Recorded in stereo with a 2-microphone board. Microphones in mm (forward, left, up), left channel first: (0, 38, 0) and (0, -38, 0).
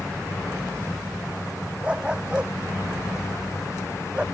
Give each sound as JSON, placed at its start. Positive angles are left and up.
{"t": 1.8, "sound": "a dog barking", "side_deg": -15}